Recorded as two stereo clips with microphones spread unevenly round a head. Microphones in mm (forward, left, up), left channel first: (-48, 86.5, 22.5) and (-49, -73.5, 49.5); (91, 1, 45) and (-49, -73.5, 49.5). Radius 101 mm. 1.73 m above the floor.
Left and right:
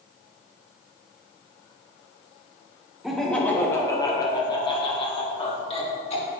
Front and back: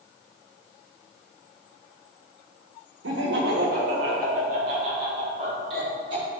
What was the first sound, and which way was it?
Laughter, 175° right.